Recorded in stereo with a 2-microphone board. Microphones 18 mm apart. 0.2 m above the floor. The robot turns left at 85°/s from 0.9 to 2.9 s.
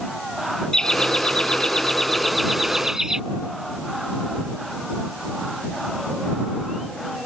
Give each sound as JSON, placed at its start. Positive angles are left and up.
{"t": 0.7, "sound": "laughter", "azimuth_deg": 125}